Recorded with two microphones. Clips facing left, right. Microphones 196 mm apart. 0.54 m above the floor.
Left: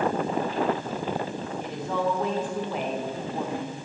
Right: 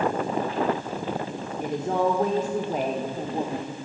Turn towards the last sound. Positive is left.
turn(degrees=-30)  # may be behind; listen again after turning